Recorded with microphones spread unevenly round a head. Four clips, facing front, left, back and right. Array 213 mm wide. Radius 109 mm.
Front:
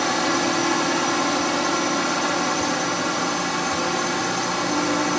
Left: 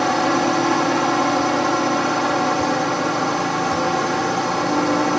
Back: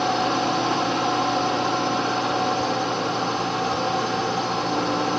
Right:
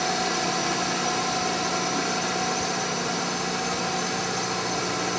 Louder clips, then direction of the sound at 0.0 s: Left 9 dB, even; 80° left.